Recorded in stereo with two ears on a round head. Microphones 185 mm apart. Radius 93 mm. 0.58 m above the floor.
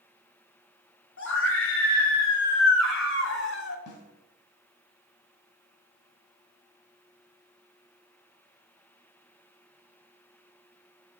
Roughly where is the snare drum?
Left.